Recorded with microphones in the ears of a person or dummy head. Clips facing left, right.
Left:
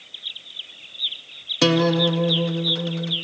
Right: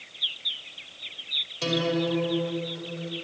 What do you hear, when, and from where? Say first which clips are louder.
1.6 s a guitar: left 7 dB; 85° left, 1.5 m